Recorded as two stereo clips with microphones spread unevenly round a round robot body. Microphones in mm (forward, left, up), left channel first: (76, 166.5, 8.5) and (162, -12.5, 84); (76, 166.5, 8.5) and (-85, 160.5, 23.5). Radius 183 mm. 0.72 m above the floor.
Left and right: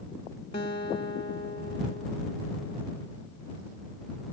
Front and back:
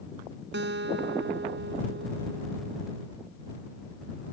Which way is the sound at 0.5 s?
175° right.